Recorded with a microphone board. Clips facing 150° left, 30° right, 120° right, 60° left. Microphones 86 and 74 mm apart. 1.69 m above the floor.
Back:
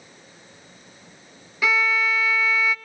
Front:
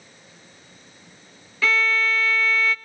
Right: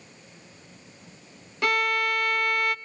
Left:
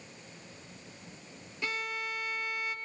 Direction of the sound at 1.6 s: 135° right.